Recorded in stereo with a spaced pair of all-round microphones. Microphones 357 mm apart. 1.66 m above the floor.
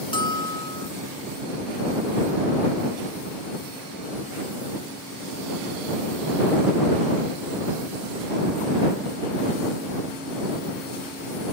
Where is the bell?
15° left (ahead or behind).